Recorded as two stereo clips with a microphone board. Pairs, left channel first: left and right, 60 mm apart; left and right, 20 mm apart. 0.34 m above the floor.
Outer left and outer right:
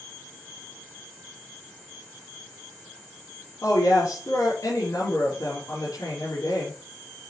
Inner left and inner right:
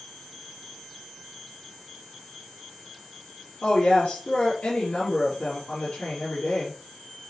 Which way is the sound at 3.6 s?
80° left.